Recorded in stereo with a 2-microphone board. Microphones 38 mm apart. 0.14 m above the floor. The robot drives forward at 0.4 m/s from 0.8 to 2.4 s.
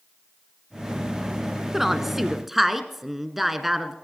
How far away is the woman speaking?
About 1.1 m.